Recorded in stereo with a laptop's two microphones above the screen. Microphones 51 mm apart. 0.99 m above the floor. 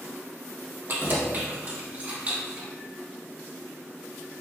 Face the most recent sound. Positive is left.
turn(degrees=-25)  # may be behind; listen again after turning